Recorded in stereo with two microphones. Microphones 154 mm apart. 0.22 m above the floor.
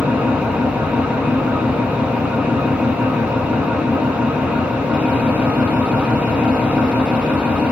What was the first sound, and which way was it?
An engine running, 5° right (ahead or behind).